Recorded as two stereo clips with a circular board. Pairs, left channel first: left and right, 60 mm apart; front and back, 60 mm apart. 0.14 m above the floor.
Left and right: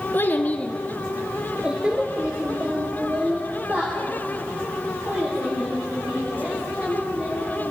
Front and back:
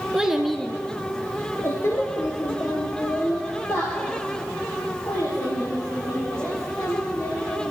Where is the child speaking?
110° left, 1.3 m; by 7.7 s 40° right, 9 m.